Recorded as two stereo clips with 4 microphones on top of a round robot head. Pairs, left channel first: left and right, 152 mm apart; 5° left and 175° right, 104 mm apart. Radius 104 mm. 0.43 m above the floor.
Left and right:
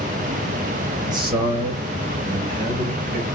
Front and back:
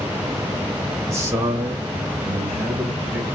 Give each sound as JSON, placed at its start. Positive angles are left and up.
{"t": 1.1, "sound": "a man speaking", "azimuth_deg": -135, "distance_m": 1.0}